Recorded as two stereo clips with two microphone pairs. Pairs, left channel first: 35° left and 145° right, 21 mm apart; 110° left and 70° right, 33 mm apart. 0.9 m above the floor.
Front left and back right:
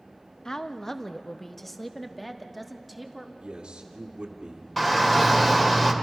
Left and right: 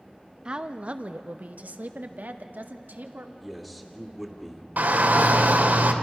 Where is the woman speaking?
15° right, 0.8 m; by 3.3 s 60° right, 2 m.